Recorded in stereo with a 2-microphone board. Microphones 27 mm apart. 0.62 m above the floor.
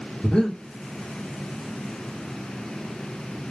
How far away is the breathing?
About 1.5 m.